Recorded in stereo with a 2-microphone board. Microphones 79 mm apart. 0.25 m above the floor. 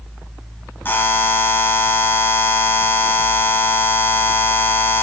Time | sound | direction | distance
0.8 | a buzzer | 25° left (ahead or behind) | 1.2 m